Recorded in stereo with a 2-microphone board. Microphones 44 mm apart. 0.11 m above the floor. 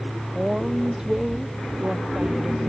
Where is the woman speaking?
15° right (ahead or behind).